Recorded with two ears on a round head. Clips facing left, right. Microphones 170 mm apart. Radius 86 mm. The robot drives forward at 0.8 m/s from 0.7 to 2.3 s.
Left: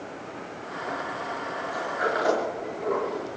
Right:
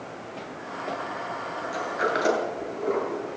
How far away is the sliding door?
About 8.5 m.